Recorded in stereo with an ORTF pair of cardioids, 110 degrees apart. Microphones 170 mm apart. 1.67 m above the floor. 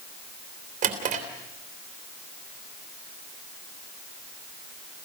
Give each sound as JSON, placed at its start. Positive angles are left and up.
{"t": 0.8, "sound": "a drawer", "azimuth_deg": -55, "distance_m": 3.0}